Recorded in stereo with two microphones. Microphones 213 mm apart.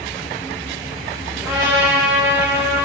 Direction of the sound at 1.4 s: 15° right (ahead or behind).